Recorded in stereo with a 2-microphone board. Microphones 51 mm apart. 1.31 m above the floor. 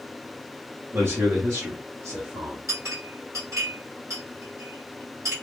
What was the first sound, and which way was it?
A man speaking, 60° right (ahead or behind).